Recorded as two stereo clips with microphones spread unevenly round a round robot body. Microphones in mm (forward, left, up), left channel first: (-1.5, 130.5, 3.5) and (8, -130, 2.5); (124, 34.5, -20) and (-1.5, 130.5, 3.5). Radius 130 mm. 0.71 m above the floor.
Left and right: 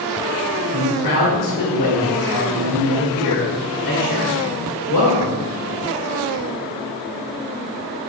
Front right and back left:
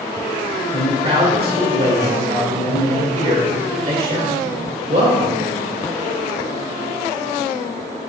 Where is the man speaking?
105° left, 2 m.